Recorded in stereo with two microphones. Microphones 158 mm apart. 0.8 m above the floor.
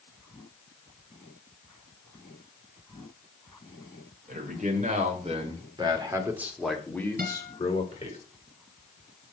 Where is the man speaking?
60° right (ahead or behind), 3 m; by 8.2 s 40° left (ahead or behind), 2.5 m.